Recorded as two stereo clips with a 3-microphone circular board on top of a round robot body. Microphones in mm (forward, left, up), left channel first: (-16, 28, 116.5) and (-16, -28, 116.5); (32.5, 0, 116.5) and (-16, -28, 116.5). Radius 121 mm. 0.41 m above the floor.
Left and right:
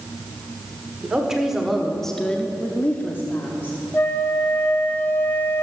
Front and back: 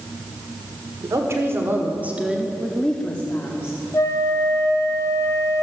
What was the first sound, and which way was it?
A woman speaking, 165° right.